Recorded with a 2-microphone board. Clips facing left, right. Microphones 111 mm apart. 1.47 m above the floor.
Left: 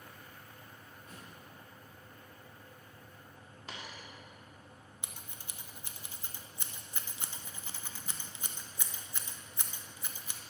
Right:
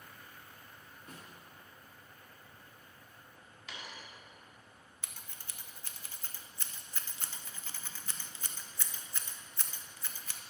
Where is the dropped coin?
40° left (ahead or behind), 1.3 m.